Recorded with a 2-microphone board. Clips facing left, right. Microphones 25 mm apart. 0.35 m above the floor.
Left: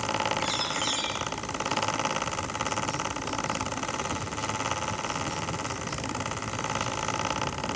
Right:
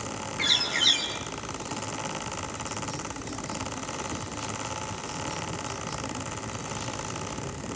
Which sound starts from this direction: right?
A bird, at 0.4 s.